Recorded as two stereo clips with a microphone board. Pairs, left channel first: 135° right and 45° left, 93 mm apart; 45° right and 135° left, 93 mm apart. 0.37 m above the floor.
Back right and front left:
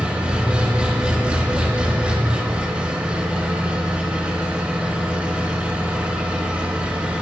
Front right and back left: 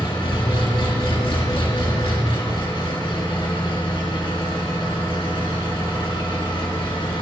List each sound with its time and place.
0.0 s an engine running: 30° right, 3.5 m